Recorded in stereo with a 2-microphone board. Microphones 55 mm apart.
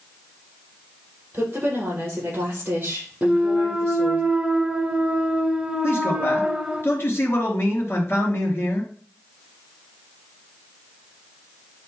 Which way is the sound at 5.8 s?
45° left (ahead or behind).